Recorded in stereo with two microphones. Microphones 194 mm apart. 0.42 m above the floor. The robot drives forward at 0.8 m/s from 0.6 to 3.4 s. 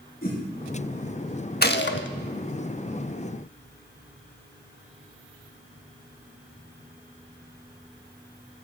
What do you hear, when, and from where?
0.2 s a whoosh: 50° left (ahead or behind), 5.5 m
1.6 s a gunshot: 55° left (ahead or behind), 0.6 m; by 2.1 s 75° left (ahead or behind), 0.5 m